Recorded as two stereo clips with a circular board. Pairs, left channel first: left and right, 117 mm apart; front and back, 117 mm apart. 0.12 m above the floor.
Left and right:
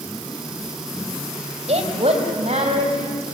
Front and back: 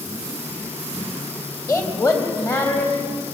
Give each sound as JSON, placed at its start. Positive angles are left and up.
{"t": 1.7, "sound": "a woman speaking", "azimuth_deg": -65, "distance_m": 3.0}